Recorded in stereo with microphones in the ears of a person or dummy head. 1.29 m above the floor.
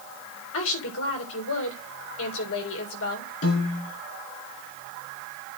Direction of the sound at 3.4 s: 70° left (ahead or behind).